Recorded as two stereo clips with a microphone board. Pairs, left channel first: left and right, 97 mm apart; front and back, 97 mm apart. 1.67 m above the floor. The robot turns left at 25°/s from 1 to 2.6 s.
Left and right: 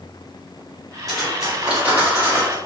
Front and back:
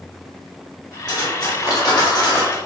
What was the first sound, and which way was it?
Cutlery clinking, 5° left.